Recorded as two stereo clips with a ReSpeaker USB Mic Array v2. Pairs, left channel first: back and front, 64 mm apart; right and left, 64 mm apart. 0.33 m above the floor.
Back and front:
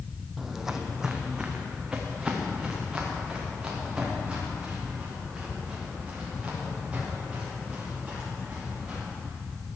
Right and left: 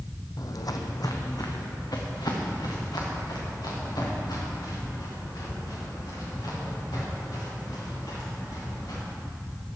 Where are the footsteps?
85° right, 0.7 m; by 9.0 s 75° right, 8 m.